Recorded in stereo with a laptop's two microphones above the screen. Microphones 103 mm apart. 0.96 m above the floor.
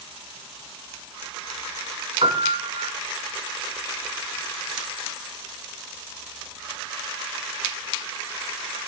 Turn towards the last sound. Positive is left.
turn(degrees=-65)  # may be behind; listen again after turning